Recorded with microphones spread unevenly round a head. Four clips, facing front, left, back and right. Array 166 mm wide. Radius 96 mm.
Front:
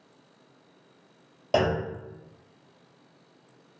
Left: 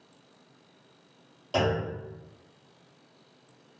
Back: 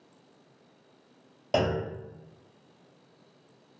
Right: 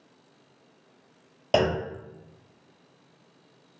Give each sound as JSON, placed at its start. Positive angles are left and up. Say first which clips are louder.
{"t": 1.5, "sound": "a clunk", "louder": "right 3 dB, front 2 dB", "azimuth_deg": -55, "distance_m": 1.6}